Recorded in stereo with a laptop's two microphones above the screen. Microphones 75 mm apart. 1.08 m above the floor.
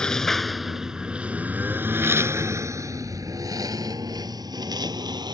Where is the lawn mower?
10° left (ahead or behind); by 5.3 s 70° right (ahead or behind).